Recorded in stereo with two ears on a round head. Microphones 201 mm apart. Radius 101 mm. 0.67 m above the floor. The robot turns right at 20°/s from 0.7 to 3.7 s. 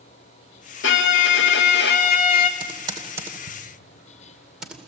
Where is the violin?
100° left, 1.6 m; by 2.5 s 135° left, 1.6 m.